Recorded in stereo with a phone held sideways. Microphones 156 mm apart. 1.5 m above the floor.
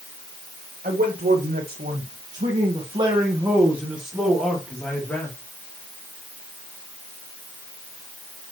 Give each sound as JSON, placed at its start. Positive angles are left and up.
{"t": 0.8, "sound": "a man speaking", "side_deg": -80, "distance_m": 2.0}